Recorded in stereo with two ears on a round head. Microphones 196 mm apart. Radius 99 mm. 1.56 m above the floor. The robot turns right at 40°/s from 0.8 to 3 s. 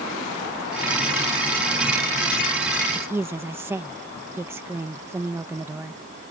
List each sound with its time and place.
3.0 s a woman speaking: 10° right (ahead or behind)